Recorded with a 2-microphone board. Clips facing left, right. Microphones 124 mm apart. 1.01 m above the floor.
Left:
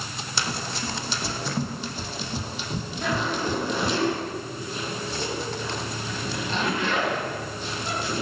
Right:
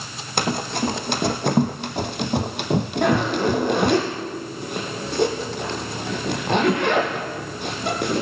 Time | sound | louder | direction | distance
0.4 | running footsteps | right 9 dB | 55° right (ahead or behind) | 3 m
3.0 | a zipper | right 6 dB | 65° right (ahead or behind) | 6.5 m